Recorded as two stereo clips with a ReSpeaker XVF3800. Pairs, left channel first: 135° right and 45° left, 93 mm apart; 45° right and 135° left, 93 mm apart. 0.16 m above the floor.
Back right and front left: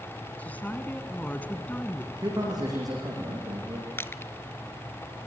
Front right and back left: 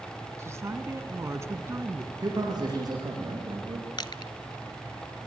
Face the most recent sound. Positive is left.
turn(degrees=-75)